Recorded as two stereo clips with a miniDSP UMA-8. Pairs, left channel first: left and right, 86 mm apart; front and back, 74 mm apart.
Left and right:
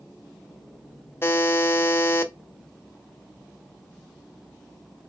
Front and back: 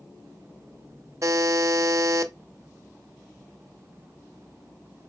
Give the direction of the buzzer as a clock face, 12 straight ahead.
7 o'clock.